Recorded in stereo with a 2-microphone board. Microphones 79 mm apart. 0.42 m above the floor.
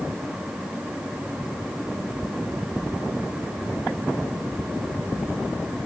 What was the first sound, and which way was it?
Only background noise.